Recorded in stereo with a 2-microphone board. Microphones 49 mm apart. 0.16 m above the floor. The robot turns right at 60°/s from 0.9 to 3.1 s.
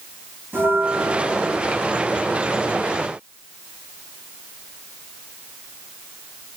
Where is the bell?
135° right, 7.5 m; by 1.9 s 75° right, 7.5 m.